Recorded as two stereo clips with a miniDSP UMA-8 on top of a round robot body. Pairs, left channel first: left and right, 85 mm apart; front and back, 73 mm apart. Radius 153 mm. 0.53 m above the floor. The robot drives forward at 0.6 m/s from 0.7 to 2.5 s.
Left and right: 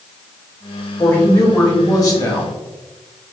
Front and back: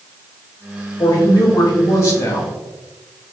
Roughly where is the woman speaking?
Ahead left.